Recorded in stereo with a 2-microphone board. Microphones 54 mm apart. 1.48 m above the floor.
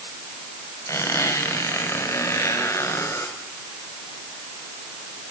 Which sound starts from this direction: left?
A squeak, at 0.9 s.